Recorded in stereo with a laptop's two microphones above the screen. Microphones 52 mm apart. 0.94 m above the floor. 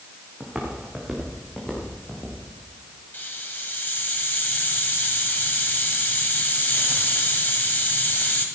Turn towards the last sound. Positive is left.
turn(degrees=40)  # may be behind; listen again after turning